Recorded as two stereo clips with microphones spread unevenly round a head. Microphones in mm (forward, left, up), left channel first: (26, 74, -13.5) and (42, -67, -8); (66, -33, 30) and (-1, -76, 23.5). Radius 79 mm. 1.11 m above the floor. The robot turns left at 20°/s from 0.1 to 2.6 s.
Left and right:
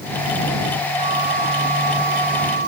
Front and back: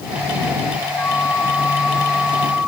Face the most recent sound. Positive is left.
turn(degrees=-70)